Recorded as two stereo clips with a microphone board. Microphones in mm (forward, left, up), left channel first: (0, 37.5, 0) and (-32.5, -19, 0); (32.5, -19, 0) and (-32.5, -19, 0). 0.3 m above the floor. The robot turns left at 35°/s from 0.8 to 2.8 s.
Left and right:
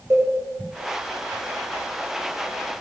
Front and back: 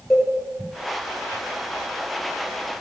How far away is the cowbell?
About 3 m.